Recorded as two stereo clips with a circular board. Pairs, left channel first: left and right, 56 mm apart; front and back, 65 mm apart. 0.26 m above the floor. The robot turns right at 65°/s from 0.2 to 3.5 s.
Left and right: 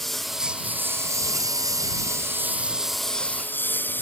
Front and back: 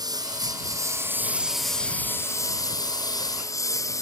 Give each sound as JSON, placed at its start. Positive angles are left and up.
{"t": 0.0, "sound": "a lawn mower", "azimuth_deg": 175}